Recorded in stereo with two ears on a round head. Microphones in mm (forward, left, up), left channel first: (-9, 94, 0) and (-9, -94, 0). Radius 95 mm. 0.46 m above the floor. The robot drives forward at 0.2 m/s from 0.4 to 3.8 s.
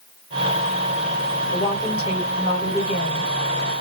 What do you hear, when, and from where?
1.5 s a woman speaking: 25° left (ahead or behind), 1.4 m